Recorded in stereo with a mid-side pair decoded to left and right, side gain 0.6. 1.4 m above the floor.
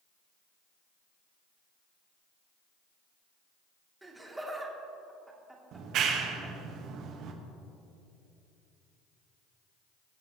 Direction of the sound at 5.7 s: 60° right.